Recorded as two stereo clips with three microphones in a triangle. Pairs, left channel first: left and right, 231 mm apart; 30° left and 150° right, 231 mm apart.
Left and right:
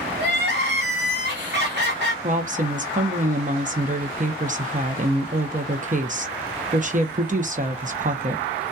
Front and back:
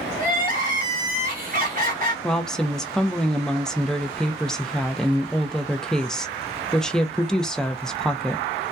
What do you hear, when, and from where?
0.2 s crying: 110° right, 1.1 m
2.2 s a woman speaking: 55° right, 0.6 m